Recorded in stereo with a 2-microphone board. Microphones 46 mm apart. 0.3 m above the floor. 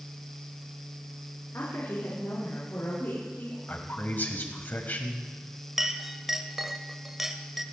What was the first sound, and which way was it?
A woman speaking, 70° left (ahead or behind).